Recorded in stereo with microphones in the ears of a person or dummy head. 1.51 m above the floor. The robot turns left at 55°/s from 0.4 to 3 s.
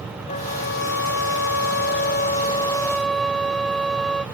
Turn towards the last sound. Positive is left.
turn(degrees=0)